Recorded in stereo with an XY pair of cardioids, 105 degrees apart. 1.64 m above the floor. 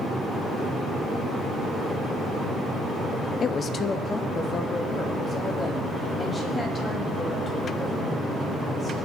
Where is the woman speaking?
50° left, 0.7 m; by 9.0 s 30° left, 9.5 m.